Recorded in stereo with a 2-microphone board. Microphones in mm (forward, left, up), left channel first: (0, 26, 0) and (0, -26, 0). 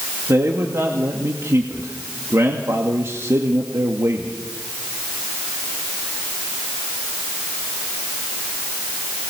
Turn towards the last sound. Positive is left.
turn(degrees=-70)  # may be behind; listen again after turning